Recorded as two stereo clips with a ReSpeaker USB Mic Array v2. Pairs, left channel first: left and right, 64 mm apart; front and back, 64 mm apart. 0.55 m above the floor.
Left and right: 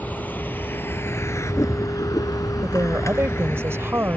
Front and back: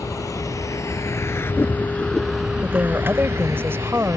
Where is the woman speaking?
135° right.